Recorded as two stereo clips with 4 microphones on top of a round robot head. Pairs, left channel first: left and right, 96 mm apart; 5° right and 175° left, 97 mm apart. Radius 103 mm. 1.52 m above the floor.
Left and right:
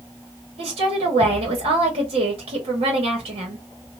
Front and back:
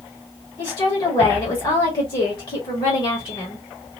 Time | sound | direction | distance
0.6 | a woman speaking | 50° right | 1.2 m